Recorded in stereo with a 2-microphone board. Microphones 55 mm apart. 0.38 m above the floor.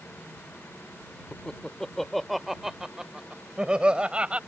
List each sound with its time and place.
1.3 s laughter: 15° left (ahead or behind); by 4.4 s 20° right (ahead or behind)